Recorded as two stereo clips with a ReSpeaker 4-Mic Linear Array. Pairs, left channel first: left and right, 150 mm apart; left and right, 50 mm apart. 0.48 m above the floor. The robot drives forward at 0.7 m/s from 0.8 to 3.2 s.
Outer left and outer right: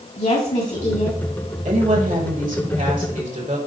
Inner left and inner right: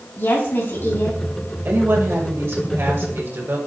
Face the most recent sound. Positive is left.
turn(degrees=-55)  # may be behind; listen again after turning